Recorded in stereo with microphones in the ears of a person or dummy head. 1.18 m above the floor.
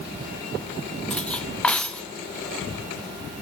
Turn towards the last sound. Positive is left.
turn(degrees=5)  # may be behind; listen again after turning